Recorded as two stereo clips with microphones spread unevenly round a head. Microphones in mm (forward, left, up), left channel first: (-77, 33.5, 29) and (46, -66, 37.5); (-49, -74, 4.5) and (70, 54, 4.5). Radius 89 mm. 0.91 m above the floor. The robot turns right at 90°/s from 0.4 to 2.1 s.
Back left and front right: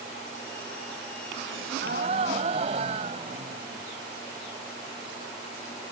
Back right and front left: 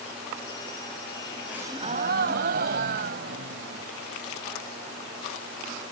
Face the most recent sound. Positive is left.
turn(degrees=15)